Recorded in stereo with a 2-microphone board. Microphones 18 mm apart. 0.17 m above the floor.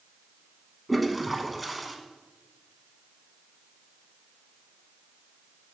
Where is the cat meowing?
No cat meowing in this recording.